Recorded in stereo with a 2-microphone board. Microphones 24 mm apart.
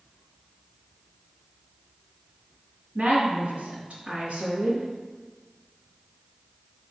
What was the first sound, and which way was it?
A woman speaking, 45° right (ahead or behind).